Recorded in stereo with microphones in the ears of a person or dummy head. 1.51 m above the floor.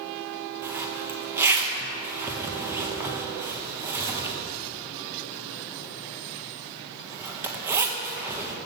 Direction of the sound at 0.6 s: 10° right (ahead or behind).